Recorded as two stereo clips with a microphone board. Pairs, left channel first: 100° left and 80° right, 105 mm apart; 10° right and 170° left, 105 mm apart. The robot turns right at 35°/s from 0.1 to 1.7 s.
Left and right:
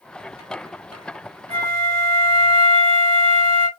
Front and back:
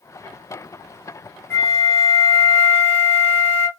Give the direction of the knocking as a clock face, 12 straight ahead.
No knocking in this recording.